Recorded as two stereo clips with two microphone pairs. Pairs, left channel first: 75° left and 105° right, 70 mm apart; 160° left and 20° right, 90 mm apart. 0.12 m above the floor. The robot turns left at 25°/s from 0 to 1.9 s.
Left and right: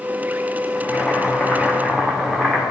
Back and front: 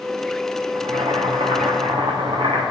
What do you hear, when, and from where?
0.8 s boiling: 10° left, 2 m; by 2.6 s 20° right, 2 m